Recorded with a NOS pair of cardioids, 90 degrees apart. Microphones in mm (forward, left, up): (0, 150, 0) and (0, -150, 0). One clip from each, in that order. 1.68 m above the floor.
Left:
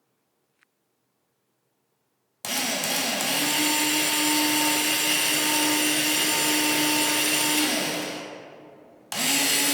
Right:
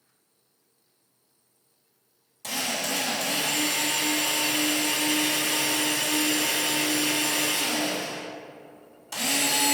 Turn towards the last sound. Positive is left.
turn(degrees=65)